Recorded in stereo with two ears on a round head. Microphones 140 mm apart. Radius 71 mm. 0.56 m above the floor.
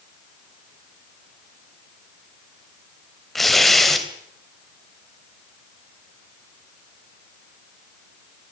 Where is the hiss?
No hiss in this recording.